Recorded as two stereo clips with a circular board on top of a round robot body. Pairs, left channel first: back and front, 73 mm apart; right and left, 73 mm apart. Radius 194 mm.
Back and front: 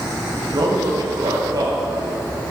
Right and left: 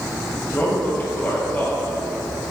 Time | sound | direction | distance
0.5 | a man speaking | 25° right | 1.8 m